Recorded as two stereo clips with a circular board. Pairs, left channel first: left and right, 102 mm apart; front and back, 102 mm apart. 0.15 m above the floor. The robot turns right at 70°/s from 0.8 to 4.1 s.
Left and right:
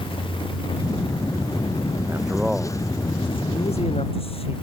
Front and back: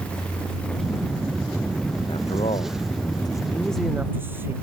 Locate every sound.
2.1 s a man speaking: 30° right; by 4.5 s 110° left